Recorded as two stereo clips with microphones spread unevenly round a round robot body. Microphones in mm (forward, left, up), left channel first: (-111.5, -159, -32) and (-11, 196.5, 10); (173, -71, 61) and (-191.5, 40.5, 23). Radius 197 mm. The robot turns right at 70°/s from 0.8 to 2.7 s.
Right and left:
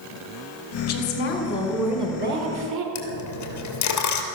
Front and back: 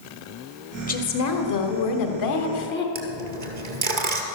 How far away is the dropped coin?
About 2.5 m.